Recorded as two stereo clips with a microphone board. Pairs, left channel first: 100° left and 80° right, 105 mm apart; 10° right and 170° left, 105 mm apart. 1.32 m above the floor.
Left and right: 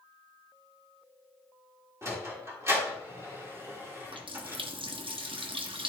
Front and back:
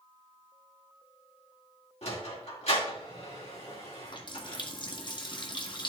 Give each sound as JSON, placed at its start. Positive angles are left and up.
{"t": 2.0, "sound": "a sliding door", "azimuth_deg": -15, "distance_m": 3.0}
{"t": 4.0, "sound": "a running tap", "azimuth_deg": -50, "distance_m": 1.2}